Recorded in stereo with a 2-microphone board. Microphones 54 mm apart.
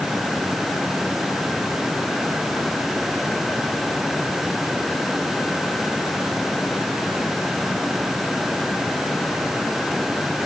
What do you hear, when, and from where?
Only background noise.